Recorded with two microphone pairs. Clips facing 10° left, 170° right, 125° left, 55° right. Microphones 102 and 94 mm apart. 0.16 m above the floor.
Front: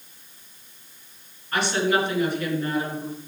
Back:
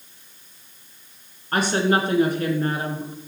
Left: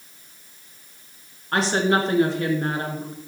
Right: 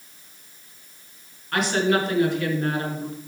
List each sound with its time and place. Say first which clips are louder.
1.5 s a woman speaking: back 2 dB, left 1 dB; 170° left, 2 m